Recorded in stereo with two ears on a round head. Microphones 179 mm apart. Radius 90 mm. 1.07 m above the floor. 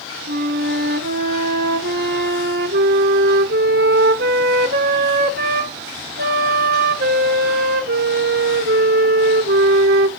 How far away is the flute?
About 1.0 m.